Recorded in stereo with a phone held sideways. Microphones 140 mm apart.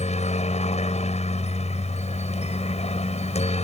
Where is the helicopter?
50° left (ahead or behind).